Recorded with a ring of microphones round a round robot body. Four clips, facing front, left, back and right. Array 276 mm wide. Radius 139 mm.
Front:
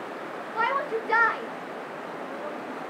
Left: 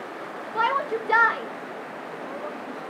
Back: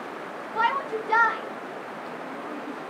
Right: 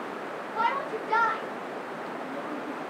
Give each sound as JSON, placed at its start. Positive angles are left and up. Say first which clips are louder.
{"t": 0.6, "sound": "a shout", "louder": "left 4 dB, back 1 dB", "azimuth_deg": 70, "distance_m": 2.0}